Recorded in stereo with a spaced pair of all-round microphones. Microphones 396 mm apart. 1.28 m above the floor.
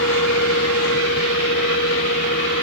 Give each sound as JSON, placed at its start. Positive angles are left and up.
{"t": 0.0, "sound": "a fan", "side_deg": 35}